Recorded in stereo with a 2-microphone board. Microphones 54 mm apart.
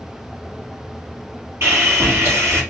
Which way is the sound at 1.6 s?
45° right (ahead or behind).